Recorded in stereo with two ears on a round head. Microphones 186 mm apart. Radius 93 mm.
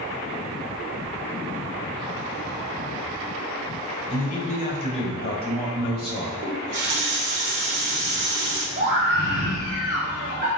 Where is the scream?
35° right (ahead or behind), 1.5 m.